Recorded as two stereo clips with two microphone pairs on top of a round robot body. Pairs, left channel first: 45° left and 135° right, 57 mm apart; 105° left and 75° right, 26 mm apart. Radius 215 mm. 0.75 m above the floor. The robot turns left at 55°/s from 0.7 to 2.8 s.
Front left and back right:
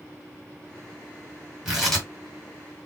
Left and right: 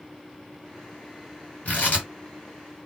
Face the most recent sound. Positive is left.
turn(degrees=80)